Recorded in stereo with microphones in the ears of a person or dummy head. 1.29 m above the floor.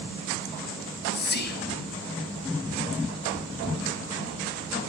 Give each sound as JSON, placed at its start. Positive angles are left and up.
{"t": 0.8, "sound": "whispering", "side_deg": 55, "distance_m": 0.7}